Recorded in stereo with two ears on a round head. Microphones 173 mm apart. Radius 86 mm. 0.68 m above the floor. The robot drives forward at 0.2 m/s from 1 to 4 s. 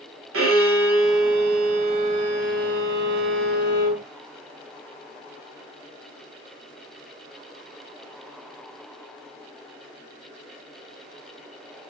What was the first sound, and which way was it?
A violin, 80° right.